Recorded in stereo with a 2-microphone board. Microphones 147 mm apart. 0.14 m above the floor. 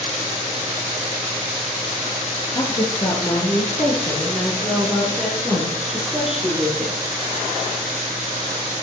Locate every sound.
2.5 s a woman speaking: 30° left (ahead or behind), 2.5 m; by 6.9 s 5° right (ahead or behind), 4 m